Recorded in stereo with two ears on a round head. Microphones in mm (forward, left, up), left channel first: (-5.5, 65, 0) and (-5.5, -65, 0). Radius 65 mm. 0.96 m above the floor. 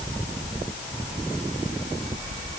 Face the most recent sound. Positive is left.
No sound to turn to.